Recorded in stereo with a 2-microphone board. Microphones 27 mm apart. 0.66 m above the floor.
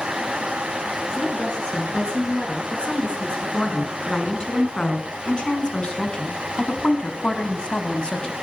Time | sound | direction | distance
1.1 | a woman speaking | 35° left (ahead or behind) | 9 m